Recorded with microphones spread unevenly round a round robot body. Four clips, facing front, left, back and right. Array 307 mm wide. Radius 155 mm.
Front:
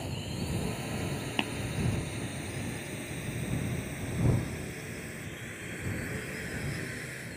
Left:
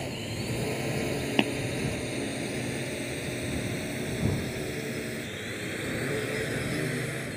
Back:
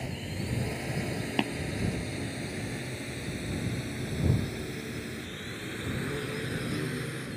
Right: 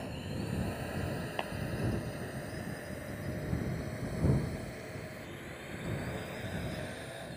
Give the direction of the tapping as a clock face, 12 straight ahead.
8 o'clock.